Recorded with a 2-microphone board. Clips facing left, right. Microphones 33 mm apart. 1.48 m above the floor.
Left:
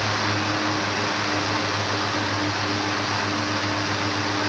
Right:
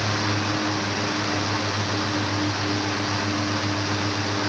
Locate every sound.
Only background noise.